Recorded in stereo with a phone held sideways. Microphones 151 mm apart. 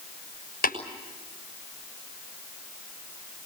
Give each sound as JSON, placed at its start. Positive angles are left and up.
{"t": 0.6, "sound": "tapping", "side_deg": 80, "distance_m": 6.5}